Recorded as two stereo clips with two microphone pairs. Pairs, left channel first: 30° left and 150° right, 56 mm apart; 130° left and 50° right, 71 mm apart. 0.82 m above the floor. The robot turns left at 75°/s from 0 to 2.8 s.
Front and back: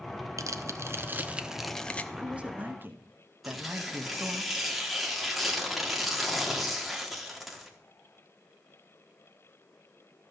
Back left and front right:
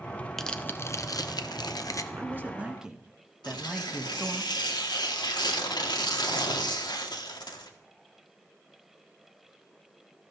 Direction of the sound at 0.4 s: 145° right.